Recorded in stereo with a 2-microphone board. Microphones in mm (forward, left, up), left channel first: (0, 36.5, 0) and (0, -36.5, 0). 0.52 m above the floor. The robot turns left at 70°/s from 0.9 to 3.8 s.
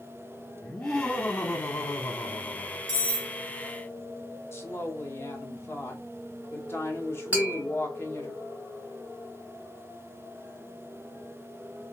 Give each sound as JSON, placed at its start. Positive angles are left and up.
{"t": 0.6, "sound": "laughter", "azimuth_deg": 180, "distance_m": 0.9}
{"t": 2.9, "sound": "cutlery clinking", "azimuth_deg": -55, "distance_m": 1.1}
{"t": 4.5, "sound": "a woman speaking", "side_deg": 35, "distance_m": 1.1}
{"t": 7.3, "sound": "tapping", "side_deg": -25, "distance_m": 1.6}